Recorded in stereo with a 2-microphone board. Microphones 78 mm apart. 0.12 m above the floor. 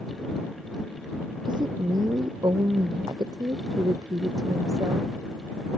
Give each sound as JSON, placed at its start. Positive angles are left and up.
{"t": 1.4, "sound": "a woman speaking", "side_deg": -65}